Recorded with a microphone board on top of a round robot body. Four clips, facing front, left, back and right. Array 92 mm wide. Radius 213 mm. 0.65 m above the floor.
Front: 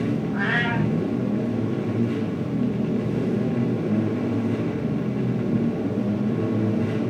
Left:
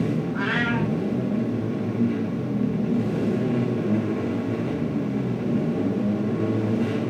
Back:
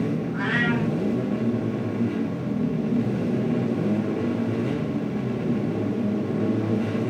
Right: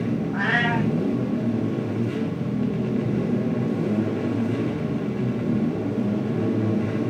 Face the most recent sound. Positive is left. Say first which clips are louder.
# right 1 dB, even
turn(degrees=-80)